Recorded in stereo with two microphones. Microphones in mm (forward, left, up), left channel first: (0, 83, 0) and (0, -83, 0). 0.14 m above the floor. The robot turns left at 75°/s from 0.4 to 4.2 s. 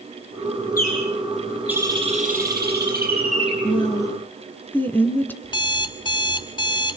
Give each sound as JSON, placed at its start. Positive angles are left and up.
{"t": 0.8, "sound": "a bird", "azimuth_deg": 60, "distance_m": 6.0}
{"t": 3.6, "sound": "a woman speaking", "azimuth_deg": 60, "distance_m": 1.8}
{"t": 5.4, "sound": "an alarm clock", "side_deg": 30, "distance_m": 1.0}